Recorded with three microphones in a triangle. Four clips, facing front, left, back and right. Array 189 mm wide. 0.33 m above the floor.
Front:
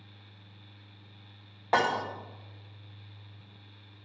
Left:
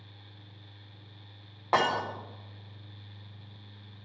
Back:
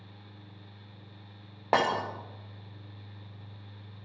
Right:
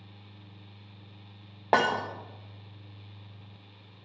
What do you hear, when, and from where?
1.7 s breaking glass: 125° right, 1.8 m